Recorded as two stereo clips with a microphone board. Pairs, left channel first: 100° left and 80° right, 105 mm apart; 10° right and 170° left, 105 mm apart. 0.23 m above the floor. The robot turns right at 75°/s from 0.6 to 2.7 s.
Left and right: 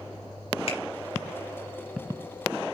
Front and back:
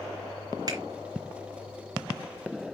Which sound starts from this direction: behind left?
A finger snap, at 0.7 s.